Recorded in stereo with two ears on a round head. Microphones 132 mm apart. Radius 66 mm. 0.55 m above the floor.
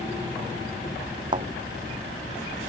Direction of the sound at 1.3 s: 35° right (ahead or behind).